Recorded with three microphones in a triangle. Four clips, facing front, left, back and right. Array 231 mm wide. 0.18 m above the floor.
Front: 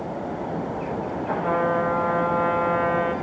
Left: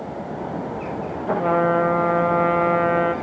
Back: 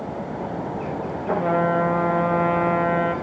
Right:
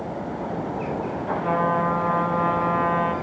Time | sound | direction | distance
1.3 | a trumpet | 120° left | 2.5 m